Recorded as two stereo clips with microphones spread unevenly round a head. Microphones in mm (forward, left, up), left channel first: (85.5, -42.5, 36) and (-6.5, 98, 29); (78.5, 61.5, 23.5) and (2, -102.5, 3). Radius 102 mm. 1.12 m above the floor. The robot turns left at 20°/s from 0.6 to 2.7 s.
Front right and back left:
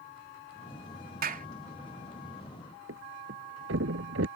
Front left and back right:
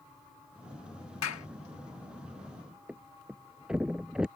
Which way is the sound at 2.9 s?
155° left.